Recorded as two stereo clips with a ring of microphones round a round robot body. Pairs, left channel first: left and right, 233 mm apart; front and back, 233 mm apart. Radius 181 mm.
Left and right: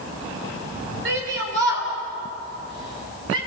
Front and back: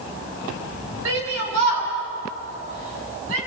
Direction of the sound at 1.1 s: 140° right.